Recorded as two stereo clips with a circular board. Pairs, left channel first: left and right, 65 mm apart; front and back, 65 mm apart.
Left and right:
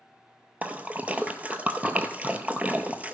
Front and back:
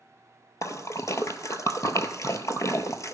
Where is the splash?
25° right, 0.6 m.